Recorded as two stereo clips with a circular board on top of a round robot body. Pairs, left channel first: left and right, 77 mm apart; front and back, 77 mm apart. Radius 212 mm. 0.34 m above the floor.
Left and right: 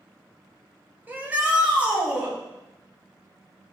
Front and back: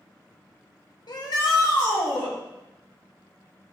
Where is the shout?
25° right, 2 m; by 2.3 s 15° right, 4 m.